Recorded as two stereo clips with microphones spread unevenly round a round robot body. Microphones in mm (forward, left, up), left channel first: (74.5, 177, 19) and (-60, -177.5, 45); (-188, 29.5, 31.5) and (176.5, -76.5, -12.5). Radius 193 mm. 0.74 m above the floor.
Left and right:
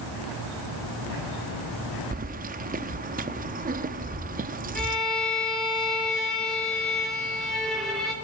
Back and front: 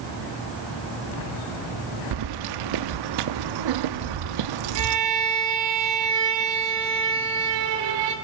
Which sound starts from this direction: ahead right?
Keys jangling, at 2.1 s.